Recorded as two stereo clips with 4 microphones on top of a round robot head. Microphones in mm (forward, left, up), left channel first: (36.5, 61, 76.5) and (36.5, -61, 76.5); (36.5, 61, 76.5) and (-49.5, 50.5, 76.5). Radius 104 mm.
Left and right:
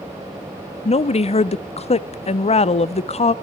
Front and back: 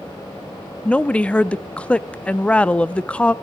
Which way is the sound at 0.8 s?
80° left.